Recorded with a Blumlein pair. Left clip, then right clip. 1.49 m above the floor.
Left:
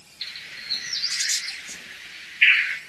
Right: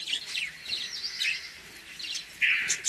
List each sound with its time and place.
0.2 s a bird: 60° left, 1.6 m